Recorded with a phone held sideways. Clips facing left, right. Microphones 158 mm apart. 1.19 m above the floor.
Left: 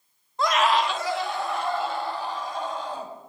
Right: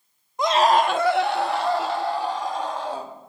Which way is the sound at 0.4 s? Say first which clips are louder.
Right 4 dB; 15° right (ahead or behind).